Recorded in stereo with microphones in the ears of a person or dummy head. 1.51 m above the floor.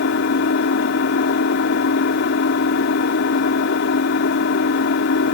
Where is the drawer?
No drawer in this recording.